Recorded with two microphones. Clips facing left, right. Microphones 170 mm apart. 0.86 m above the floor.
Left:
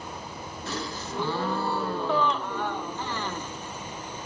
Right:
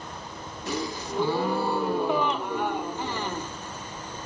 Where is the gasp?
15° right (ahead or behind), 0.7 m.